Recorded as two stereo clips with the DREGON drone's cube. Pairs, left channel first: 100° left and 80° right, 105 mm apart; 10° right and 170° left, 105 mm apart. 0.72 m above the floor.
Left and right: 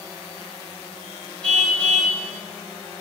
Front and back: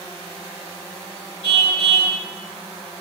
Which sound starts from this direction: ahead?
A car horn, at 1.4 s.